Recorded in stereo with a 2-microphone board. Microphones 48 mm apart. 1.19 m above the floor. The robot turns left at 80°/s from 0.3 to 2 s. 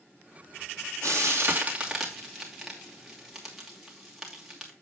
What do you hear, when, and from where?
1.0 s frying: 80° right, 2.5 m; by 4.7 s 5° right (ahead or behind), 2.5 m